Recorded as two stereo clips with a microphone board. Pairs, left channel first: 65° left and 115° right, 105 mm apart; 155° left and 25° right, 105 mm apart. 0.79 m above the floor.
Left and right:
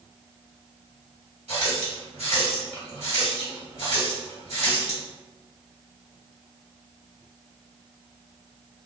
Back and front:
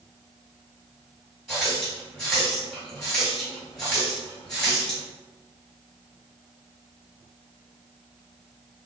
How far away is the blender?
I don't hear a blender.